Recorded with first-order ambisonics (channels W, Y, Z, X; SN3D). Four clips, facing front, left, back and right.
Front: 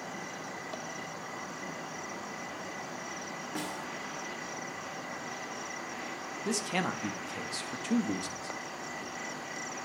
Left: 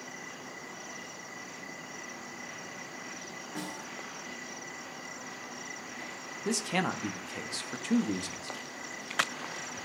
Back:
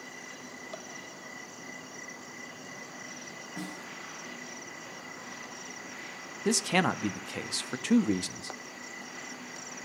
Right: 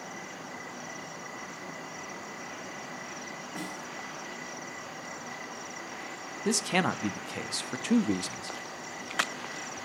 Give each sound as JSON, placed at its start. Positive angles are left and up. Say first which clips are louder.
{"t": 3.5, "sound": "a snare drum", "louder": "even, front 2 dB", "azimuth_deg": 5, "distance_m": 2.5}
{"t": 6.5, "sound": "a man speaking", "louder": "right 3 dB, back 6 dB", "azimuth_deg": -145, "distance_m": 0.5}